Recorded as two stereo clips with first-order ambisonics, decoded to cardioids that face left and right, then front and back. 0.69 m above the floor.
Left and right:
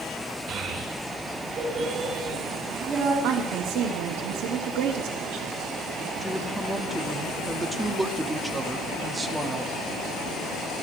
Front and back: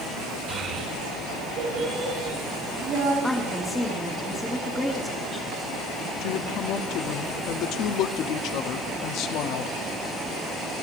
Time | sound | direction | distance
0.5 | a child speaking | 135° right | 1.6 m
3.2 | a woman speaking | 85° right | 1.3 m
6.2 | a woman speaking | 10° right | 1.0 m